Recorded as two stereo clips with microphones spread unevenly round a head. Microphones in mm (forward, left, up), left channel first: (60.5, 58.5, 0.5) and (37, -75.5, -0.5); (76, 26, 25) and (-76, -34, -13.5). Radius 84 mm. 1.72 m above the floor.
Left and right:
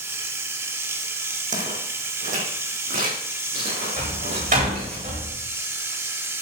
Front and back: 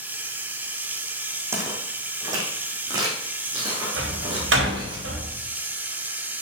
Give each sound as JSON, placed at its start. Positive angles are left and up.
{"t": 0.0, "sound": "running water", "azimuth_deg": -60, "distance_m": 1.3}
{"t": 1.5, "sound": "footsteps", "azimuth_deg": -80, "distance_m": 4.5}
{"t": 4.0, "sound": "a door slam", "azimuth_deg": -145, "distance_m": 4.0}